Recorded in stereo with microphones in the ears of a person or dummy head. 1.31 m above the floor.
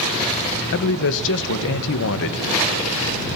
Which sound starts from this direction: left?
A man speaking, at 0.7 s.